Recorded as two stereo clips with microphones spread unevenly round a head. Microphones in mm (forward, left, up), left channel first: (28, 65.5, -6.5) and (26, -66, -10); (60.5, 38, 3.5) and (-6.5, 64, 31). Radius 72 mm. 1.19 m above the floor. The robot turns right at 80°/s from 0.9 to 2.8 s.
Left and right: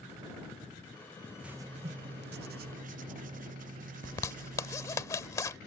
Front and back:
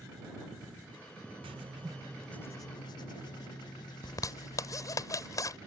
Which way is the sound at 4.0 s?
25° left.